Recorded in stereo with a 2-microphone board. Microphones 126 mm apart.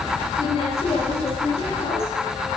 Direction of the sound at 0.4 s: 45° left (ahead or behind).